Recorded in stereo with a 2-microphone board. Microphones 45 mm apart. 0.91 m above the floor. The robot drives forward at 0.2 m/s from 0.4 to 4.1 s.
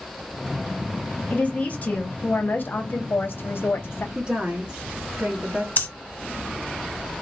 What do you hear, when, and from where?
1.3 s a woman speaking: 30° left (ahead or behind), 0.8 m; by 4.0 s 60° left (ahead or behind), 0.5 m
4.2 s a woman speaking: 20° right (ahead or behind), 1.1 m
5.8 s breathing: 45° left (ahead or behind), 0.6 m